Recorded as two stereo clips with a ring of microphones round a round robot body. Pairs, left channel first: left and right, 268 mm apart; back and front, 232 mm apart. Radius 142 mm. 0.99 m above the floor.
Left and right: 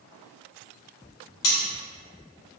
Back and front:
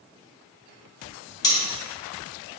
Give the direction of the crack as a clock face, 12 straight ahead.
I don't hear a crack.